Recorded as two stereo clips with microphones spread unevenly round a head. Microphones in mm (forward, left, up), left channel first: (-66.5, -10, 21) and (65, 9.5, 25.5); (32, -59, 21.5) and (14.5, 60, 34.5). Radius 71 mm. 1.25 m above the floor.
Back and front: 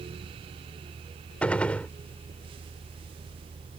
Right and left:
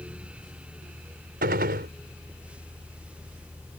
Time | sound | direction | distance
1.4 | a gunshot | 105° left | ?